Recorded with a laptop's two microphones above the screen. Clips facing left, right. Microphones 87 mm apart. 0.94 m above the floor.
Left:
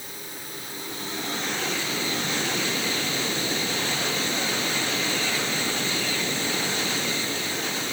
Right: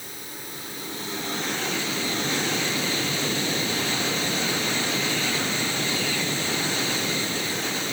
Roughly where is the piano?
No piano in this recording.